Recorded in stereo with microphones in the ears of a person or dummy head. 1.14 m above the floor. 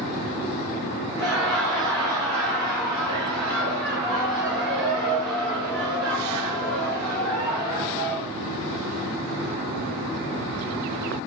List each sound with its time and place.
1.2 s laughter: centre (ahead or behind), 1.1 m